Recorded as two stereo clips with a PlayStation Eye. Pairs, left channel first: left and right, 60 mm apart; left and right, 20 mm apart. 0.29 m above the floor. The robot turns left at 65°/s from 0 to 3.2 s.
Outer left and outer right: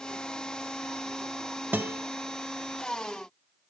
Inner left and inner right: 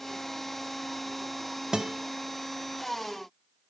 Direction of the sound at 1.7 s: 30° right (ahead or behind).